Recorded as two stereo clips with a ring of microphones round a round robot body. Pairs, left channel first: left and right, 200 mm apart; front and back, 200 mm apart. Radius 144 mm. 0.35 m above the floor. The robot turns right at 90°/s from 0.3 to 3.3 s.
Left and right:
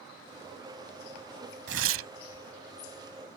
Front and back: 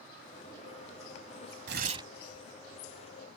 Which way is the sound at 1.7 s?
135° right.